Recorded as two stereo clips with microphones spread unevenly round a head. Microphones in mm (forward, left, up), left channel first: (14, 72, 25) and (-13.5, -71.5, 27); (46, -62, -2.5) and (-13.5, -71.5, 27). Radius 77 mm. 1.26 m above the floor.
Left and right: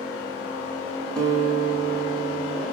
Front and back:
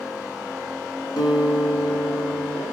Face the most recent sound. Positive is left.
turn(degrees=-5)